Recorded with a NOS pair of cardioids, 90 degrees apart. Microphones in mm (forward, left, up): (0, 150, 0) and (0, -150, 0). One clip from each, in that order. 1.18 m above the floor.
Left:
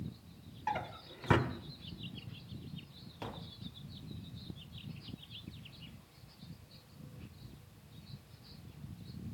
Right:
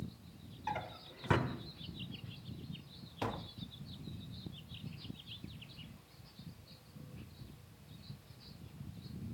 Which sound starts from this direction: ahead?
A drawer, at 0.7 s.